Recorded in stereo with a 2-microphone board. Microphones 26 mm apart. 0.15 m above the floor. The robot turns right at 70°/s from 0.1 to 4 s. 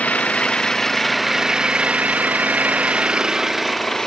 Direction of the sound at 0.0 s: 105° left.